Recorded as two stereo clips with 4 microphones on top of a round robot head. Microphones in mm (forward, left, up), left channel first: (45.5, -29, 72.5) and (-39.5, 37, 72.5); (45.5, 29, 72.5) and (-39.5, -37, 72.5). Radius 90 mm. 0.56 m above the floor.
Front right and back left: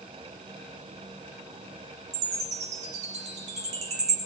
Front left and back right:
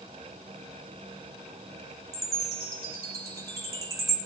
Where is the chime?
155° left, 4.5 m.